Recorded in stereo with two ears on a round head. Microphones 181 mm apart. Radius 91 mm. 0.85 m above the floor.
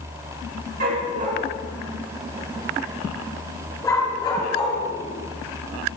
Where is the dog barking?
45° right (ahead or behind), 4.5 m; by 6.0 s 40° left (ahead or behind), 6.5 m.